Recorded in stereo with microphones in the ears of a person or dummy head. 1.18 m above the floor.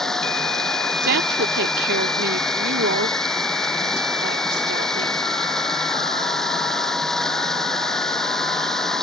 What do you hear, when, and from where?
0.0 s running water: 5° left (ahead or behind)
1.0 s a woman speaking: 60° right (ahead or behind)